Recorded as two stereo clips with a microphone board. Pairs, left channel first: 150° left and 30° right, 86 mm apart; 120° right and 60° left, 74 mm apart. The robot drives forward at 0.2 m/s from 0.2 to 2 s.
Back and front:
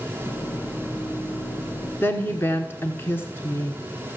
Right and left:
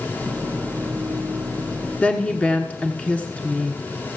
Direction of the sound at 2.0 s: 175° right.